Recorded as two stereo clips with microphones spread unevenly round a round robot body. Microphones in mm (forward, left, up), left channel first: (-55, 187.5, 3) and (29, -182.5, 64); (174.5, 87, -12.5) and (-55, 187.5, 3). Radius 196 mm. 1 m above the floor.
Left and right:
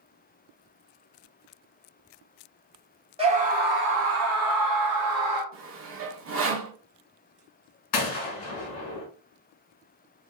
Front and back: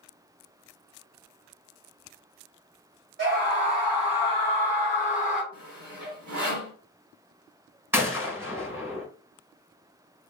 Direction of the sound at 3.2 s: 155° right.